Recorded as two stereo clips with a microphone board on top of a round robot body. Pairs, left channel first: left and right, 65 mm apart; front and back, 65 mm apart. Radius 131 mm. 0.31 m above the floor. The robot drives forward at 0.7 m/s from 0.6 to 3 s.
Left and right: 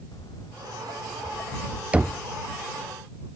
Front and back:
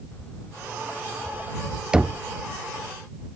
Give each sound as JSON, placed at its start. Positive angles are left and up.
{"t": 0.1, "sound": "footsteps", "azimuth_deg": 65}
{"t": 1.9, "sound": "knocking", "azimuth_deg": -125}